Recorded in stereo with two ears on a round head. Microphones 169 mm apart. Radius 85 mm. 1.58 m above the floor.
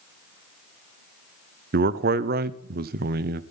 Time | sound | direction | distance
1.7 | a man speaking | 50° right (ahead or behind) | 0.7 m